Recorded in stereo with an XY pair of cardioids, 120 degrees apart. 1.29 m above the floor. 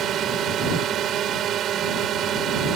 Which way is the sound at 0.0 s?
60° right.